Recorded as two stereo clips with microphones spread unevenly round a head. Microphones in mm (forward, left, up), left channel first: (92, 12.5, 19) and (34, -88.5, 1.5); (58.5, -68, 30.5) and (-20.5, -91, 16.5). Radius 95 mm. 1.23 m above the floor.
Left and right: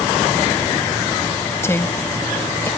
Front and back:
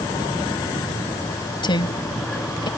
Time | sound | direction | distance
1.6 | a woman speaking | 5° right | ?